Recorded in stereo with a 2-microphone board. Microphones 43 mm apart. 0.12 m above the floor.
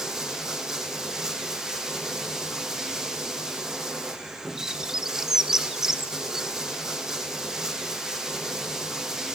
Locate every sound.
0.0 s running water: 15° right (ahead or behind), 1.5 m
4.6 s a bird: 15° right (ahead or behind), 0.7 m